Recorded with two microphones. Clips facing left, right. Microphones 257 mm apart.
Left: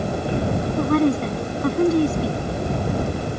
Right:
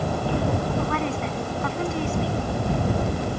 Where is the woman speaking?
40° left (ahead or behind).